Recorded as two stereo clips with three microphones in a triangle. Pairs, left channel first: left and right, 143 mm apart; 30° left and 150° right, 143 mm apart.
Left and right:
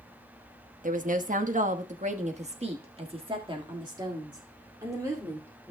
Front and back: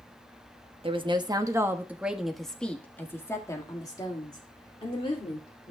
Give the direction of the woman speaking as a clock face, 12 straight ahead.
3 o'clock.